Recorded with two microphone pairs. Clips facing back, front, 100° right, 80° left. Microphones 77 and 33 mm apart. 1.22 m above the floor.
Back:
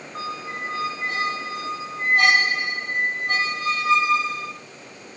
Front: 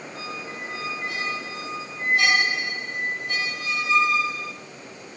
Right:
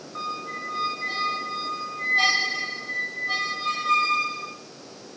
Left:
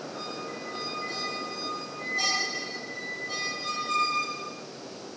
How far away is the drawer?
I don't hear a drawer.